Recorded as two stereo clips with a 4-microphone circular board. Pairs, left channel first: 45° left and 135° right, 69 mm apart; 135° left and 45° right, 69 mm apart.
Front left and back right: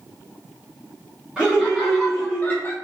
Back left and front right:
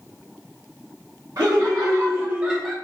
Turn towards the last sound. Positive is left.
turn(degrees=65)